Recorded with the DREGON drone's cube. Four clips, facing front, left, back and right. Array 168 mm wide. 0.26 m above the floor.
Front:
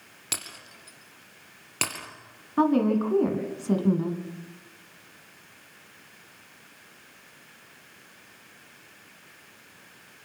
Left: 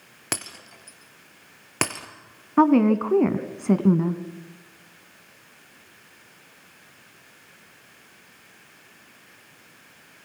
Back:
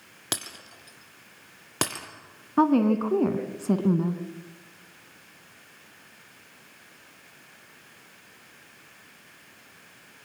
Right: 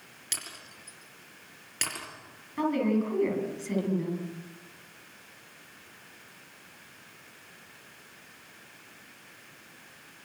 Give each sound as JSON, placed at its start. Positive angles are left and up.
{"t": 0.3, "sound": "breaking glass", "azimuth_deg": 120, "distance_m": 3.0}
{"t": 2.6, "sound": "a woman speaking", "azimuth_deg": 110, "distance_m": 2.0}